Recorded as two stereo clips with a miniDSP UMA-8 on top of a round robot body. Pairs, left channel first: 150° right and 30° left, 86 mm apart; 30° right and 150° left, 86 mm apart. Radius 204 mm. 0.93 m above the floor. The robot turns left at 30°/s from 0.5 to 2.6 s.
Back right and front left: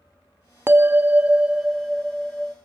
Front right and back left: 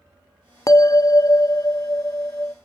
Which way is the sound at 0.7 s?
15° right.